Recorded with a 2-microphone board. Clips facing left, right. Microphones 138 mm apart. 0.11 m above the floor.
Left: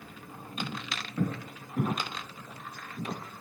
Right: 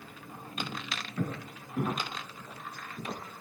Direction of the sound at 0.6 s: 10° left (ahead or behind).